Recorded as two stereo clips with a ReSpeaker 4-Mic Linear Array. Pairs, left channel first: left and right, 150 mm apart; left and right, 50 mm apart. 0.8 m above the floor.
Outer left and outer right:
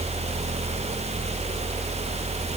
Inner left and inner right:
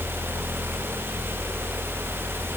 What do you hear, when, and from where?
Only background noise.